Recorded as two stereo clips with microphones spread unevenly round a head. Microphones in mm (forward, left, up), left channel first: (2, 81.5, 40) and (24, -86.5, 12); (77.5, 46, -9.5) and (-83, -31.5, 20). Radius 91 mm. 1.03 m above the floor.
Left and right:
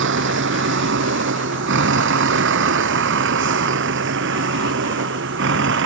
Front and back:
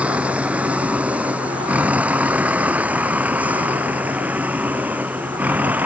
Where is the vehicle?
70° right.